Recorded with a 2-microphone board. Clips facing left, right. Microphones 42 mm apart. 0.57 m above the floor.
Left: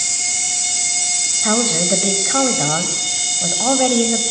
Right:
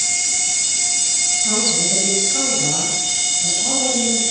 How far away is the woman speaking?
About 3 m.